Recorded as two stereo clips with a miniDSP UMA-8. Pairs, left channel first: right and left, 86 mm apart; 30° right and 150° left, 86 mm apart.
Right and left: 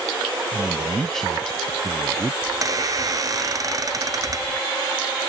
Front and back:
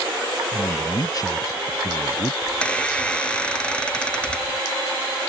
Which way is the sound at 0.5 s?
5° right.